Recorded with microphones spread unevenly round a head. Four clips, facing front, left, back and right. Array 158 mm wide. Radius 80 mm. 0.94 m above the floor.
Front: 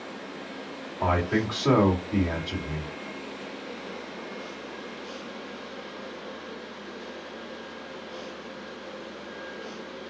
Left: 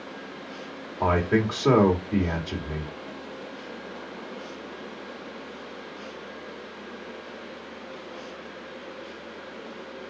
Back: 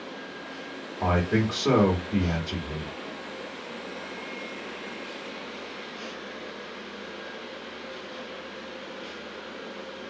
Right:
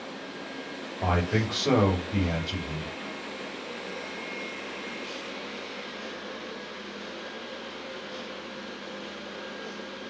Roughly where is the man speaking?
Left.